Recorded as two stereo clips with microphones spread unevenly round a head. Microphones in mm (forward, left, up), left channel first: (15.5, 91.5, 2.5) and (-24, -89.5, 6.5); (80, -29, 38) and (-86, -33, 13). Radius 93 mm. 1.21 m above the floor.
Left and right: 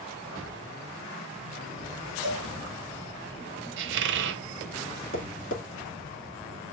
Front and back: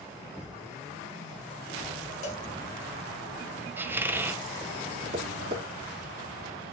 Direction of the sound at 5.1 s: 125° left.